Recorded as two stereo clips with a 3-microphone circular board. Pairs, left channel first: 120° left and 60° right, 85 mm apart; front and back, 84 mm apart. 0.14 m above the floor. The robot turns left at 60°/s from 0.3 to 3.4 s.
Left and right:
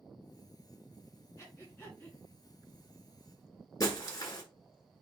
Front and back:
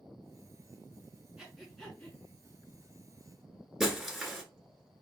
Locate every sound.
1.4 s breathing: 105° left, 1.7 m; by 2.2 s 55° left, 1.7 m
3.8 s breaking glass: 95° left, 1.2 m